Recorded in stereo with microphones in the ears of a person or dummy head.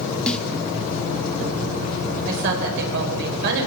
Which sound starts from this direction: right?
A woman speaking, at 2.2 s.